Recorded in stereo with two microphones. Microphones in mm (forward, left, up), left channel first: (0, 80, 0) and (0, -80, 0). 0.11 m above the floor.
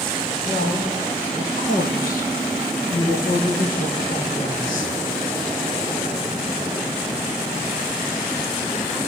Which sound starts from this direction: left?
A woman speaking, at 0.5 s.